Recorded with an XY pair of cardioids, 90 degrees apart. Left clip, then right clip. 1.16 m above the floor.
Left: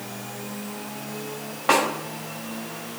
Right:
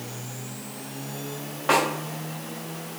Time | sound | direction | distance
1.7 | a snare drum | 25° left | 2 m